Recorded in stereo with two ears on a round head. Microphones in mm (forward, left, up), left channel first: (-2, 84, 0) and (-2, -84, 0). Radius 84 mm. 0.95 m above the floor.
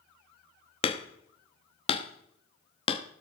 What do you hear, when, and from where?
0.8 s hammering: 30° left (ahead or behind), 0.9 m